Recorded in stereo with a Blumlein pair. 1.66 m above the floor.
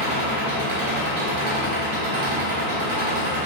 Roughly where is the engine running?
Ahead right.